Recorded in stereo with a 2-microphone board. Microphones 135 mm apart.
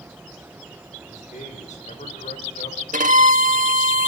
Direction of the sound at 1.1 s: 70° left (ahead or behind).